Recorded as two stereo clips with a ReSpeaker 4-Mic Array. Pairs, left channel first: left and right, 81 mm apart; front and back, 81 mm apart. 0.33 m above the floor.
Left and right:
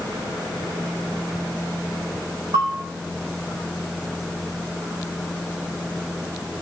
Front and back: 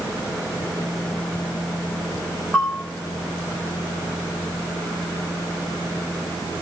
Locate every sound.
2.5 s a bell: 85° right, 4.5 m